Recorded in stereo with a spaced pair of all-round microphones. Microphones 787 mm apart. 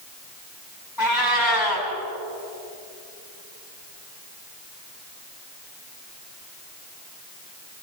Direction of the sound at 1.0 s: 25° left (ahead or behind).